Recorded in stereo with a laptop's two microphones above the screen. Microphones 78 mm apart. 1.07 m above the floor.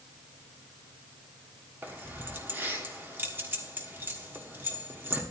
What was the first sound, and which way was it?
Keys jangling, 30° right (ahead or behind).